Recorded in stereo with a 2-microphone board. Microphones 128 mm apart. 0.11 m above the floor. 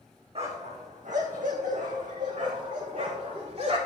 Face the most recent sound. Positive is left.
turn(degrees=-55)  # may be behind; listen again after turning